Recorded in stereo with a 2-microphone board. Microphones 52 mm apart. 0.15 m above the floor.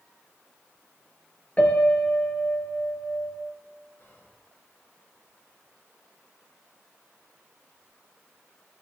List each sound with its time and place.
1.6 s a piano: 30° left (ahead or behind), 1.4 m
4.0 s whispering: 50° left (ahead or behind), 2.5 m